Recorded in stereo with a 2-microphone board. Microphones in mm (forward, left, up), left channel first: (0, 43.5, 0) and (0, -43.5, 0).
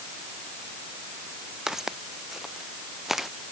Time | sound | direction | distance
1.7 | footsteps | 5° right (ahead or behind) | ?